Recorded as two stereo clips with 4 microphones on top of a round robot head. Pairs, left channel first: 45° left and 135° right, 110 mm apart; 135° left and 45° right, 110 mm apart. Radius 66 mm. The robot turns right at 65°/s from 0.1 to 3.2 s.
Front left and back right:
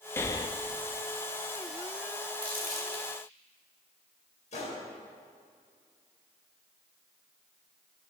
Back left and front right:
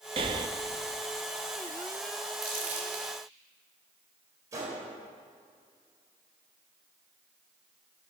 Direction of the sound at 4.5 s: 20° left.